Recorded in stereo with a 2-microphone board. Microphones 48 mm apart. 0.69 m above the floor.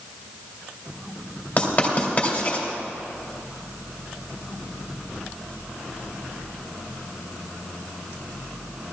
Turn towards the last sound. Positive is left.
turn(degrees=40)  # may be behind; listen again after turning